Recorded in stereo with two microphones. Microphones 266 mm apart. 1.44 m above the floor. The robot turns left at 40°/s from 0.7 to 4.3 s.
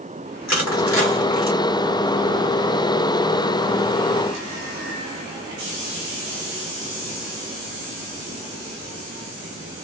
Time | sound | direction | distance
0.5 | crushing | 80° left | 2.0 m